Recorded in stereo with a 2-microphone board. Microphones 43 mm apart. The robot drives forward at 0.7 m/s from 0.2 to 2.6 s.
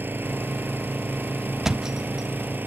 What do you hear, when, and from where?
0.0 s an engine running: 55° right (ahead or behind); by 2.7 s 50° right (ahead or behind)
1.6 s a thud: 10° right (ahead or behind)